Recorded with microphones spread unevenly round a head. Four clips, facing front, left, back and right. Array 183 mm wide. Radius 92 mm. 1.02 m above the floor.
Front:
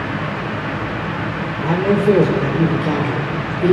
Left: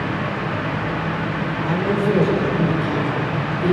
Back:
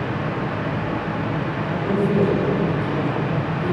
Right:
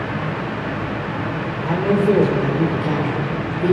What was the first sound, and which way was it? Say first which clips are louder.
A man speaking: right 4 dB, front 8 dB; 10° right.